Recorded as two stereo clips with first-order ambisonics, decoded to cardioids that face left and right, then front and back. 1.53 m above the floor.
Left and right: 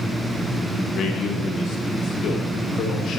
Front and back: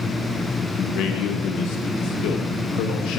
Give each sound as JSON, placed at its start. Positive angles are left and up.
{"t": 0.8, "sound": "a man speaking", "azimuth_deg": 35, "distance_m": 1.0}